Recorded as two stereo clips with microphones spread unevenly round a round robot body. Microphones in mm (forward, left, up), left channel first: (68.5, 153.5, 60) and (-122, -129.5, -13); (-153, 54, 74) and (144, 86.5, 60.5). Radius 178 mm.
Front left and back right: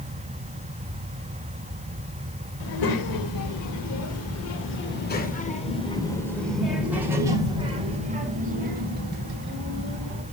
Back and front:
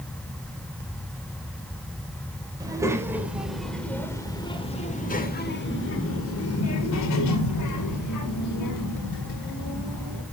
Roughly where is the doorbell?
No doorbell in this recording.